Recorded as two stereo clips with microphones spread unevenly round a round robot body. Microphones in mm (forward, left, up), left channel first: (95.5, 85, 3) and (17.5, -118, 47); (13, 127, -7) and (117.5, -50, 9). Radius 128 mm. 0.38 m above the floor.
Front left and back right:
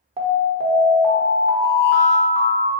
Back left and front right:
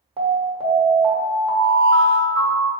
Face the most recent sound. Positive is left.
turn(degrees=-70)